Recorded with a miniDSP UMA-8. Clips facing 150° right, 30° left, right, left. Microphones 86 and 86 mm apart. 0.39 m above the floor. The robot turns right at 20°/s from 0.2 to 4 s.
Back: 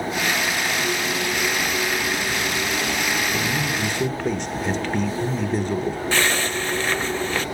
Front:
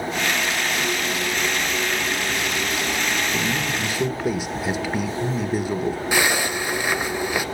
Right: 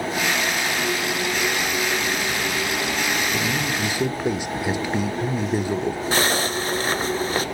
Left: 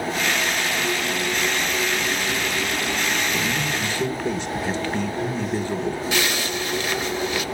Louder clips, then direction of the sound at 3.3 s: Even, right 1 dB; 50° right.